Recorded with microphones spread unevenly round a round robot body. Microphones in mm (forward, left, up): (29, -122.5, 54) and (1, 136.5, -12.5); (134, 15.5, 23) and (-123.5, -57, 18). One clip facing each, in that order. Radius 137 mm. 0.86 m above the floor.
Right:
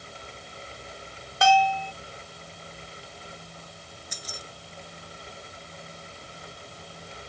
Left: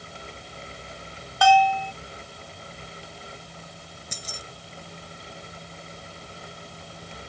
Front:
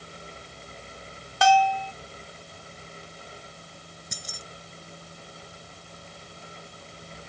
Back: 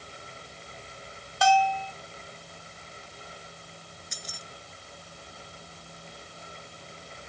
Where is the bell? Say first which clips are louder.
Left 3 dB, front 2 dB; 15° right.